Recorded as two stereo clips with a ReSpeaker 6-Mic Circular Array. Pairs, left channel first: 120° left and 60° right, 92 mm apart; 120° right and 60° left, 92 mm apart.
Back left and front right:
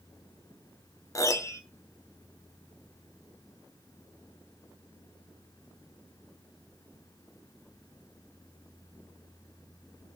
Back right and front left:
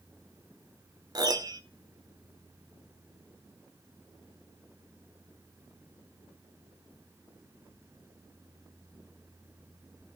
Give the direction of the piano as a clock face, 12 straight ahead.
9 o'clock.